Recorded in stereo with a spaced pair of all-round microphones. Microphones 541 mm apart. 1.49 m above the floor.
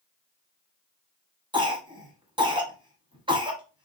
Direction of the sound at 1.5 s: 10° right (ahead or behind).